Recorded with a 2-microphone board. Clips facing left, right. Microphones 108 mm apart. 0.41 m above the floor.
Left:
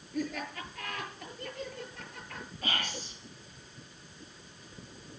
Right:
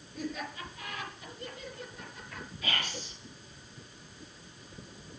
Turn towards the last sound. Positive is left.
turn(degrees=50)  # may be behind; listen again after turning